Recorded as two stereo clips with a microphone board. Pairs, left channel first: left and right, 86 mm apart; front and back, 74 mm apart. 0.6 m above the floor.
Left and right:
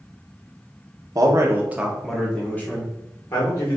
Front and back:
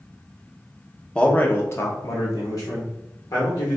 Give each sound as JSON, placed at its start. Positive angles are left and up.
{"t": 1.1, "sound": "a man speaking", "azimuth_deg": -70, "distance_m": 0.7}